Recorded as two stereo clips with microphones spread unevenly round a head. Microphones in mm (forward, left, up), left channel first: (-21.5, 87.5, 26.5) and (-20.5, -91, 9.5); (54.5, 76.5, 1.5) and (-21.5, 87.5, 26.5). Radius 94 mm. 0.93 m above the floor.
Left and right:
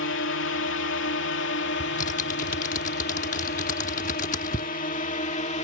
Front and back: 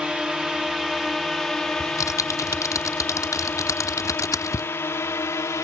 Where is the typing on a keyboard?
40° left.